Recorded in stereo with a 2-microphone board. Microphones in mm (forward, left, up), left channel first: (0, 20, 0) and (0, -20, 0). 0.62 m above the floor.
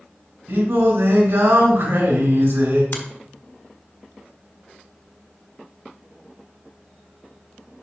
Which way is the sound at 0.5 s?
85° right.